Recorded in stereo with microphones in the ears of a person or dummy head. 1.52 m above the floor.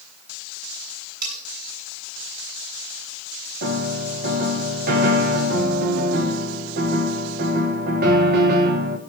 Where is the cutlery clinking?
45° right (ahead or behind), 8 m.